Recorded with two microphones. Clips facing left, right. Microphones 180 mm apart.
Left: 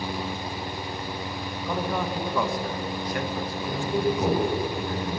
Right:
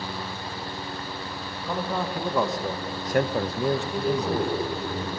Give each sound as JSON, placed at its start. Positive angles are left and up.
{"t": 1.7, "sound": "a man speaking", "side_deg": 0, "distance_m": 2.0}
{"t": 3.7, "sound": "a man speaking", "side_deg": 35, "distance_m": 9.5}